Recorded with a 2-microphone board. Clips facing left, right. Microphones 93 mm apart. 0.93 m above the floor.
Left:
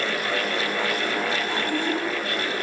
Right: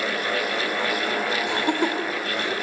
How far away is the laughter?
About 3.5 m.